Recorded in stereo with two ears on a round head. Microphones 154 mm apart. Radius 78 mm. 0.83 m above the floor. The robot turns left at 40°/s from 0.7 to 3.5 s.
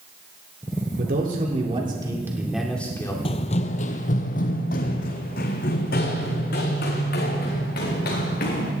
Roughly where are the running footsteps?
Left.